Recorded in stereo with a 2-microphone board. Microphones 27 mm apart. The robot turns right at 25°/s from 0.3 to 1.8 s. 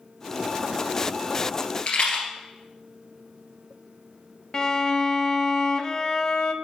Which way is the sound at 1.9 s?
50° left (ahead or behind).